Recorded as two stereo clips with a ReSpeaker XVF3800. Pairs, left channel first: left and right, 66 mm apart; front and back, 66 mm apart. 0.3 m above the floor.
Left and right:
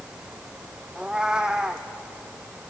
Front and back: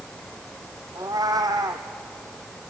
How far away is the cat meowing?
About 1.4 m.